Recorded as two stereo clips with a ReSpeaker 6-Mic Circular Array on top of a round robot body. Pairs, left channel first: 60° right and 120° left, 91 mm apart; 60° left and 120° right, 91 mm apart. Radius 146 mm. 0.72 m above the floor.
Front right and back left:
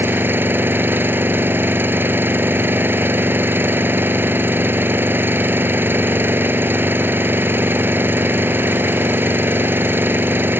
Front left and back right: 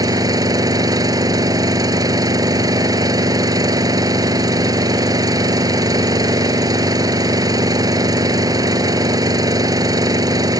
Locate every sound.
0.0 s an engine running: 170° right